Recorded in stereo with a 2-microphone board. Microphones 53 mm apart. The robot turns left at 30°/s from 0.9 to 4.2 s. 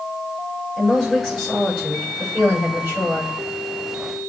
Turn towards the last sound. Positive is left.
turn(degrees=-85)